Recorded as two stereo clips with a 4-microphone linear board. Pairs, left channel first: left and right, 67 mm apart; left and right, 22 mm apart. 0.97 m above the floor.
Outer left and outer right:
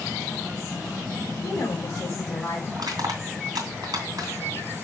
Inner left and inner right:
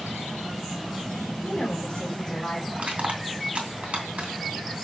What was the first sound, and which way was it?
A woman speaking, 45° left (ahead or behind).